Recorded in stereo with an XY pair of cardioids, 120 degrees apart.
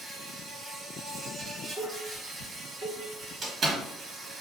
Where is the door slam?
35° right, 0.9 m.